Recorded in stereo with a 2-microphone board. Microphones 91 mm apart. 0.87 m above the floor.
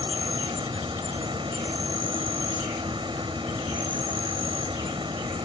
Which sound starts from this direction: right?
An insect, at 0.0 s.